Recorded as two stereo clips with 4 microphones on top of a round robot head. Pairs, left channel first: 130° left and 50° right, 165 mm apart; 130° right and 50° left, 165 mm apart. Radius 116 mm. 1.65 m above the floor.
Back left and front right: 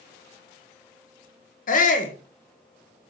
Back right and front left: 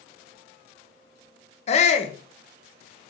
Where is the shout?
175° left, 1.5 m.